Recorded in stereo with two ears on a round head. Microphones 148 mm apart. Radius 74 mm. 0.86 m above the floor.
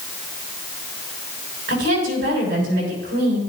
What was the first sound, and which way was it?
A woman speaking, 85° right.